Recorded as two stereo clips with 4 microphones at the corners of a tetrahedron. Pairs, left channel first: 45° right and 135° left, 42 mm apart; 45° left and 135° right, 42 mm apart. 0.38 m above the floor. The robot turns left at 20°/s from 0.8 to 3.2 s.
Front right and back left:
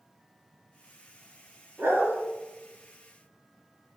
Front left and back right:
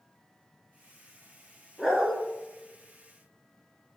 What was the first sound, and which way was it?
A dog barking, 140° left.